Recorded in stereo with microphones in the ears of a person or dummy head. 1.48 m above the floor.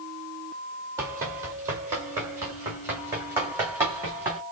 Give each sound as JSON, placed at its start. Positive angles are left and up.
{"t": 1.0, "sound": "running footsteps", "side_deg": -15, "distance_m": 1.9}